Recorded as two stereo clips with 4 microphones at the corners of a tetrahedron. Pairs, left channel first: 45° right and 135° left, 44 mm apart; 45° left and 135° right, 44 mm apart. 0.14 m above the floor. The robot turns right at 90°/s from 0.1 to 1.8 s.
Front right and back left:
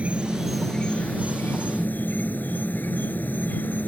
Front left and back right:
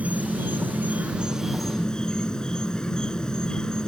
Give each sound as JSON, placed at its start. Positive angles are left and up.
{"t": 0.0, "sound": "an insect", "azimuth_deg": -175}